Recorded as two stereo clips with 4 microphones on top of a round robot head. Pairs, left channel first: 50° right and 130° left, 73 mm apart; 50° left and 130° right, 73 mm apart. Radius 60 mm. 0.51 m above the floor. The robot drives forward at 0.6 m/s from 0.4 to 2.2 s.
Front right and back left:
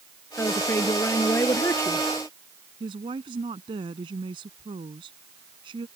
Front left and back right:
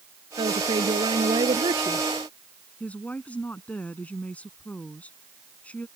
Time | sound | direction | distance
0.4 | a woman speaking | 110° right | ?
2.8 | a woman speaking | 125° left | ?